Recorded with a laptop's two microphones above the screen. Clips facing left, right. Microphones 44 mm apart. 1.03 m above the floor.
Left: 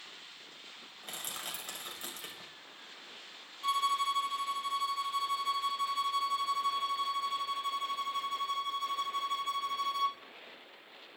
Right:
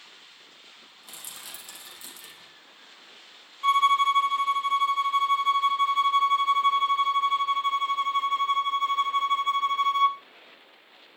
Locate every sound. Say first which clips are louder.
1.0 s crushing: left 3 dB; 50° left (ahead or behind), 6.5 m
3.6 s a violin: right 10 dB; 45° right (ahead or behind), 0.7 m